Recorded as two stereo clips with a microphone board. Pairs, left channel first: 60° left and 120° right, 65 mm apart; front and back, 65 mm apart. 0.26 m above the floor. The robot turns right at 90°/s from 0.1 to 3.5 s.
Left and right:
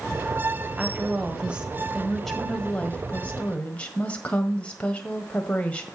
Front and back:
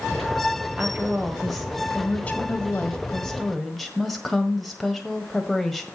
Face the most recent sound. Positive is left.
turn(degrees=90)